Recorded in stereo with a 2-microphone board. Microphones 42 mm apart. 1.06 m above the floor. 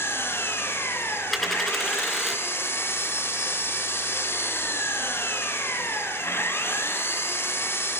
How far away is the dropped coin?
About 3 m.